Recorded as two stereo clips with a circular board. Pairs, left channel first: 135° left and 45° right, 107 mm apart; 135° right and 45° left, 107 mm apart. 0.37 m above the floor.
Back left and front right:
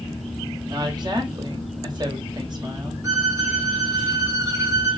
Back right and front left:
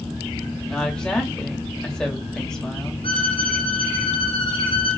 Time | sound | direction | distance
0.7 | a woman speaking | 55° right | 1.5 m
3.0 | a violin | 100° right | 2 m